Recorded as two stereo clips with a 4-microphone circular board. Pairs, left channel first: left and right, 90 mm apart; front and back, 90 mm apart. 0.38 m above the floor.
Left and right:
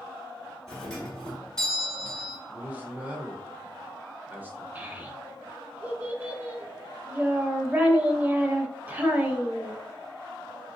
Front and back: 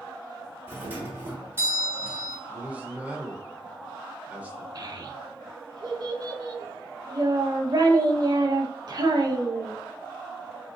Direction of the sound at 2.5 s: 130° right.